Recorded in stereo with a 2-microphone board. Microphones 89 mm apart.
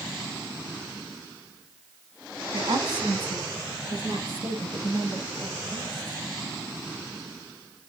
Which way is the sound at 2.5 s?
55° right (ahead or behind).